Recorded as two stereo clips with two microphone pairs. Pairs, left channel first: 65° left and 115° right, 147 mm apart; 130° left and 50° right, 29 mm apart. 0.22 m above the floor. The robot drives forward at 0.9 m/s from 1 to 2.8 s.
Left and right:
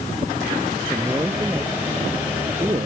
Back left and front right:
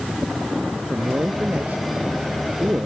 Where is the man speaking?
45° right; by 2.9 s 55° right.